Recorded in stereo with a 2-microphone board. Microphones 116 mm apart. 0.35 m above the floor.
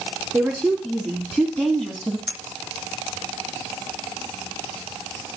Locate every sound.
0.3 s a woman speaking: centre (ahead or behind), 3.5 m; by 2.2 s 5° left (ahead or behind), 2.5 m
2.3 s a clink: 5° right (ahead or behind), 2.5 m